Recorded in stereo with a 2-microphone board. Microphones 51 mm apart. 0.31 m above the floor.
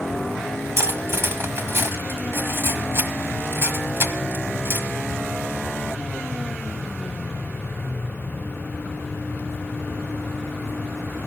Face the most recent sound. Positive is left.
turn(degrees=-55)  # may be behind; listen again after turning